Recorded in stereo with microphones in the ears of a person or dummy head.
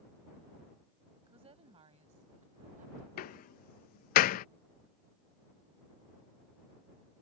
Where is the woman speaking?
35° right (ahead or behind); by 3.1 s 45° right (ahead or behind).